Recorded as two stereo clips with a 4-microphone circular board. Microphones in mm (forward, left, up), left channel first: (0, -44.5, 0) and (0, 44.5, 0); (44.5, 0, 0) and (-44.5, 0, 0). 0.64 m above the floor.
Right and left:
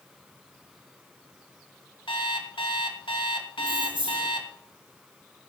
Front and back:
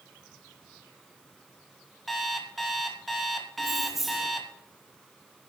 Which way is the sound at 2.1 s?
90° right.